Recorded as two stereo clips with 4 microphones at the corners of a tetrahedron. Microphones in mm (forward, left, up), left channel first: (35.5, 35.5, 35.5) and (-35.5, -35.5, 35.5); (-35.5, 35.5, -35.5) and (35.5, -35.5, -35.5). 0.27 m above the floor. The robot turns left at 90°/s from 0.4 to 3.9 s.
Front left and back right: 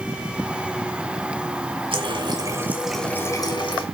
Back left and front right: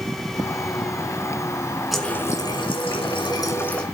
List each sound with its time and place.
1.9 s a running tap: 135° right, 2.0 m; by 3.8 s 55° left, 2.0 m